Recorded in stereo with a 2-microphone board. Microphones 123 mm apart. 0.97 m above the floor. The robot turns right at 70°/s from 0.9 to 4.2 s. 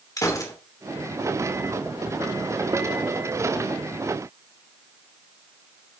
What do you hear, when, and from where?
0.2 s a gunshot: 30° left (ahead or behind), 2.5 m